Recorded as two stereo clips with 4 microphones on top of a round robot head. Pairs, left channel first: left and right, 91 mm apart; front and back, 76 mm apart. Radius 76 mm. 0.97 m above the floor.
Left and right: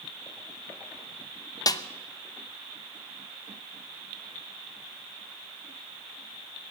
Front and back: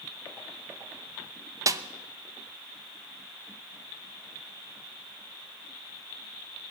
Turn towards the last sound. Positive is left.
turn(degrees=135)